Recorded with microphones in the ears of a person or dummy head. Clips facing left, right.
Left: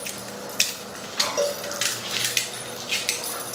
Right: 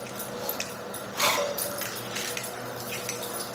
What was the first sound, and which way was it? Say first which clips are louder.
A cowbell: left 9 dB; 50° left (ahead or behind).